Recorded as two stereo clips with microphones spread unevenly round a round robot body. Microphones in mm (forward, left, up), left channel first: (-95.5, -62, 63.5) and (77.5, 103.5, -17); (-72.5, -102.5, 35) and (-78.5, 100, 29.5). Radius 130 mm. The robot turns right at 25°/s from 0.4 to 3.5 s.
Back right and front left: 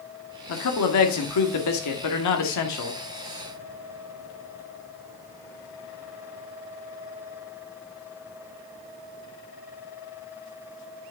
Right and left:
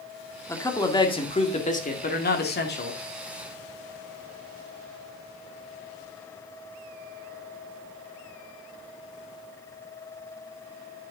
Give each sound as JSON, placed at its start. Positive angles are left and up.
{"t": 0.5, "sound": "a man speaking", "azimuth_deg": -165, "distance_m": 2.0}